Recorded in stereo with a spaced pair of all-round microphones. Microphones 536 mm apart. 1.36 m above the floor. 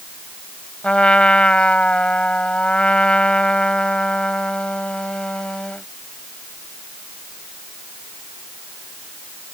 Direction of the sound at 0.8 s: Centre (ahead or behind).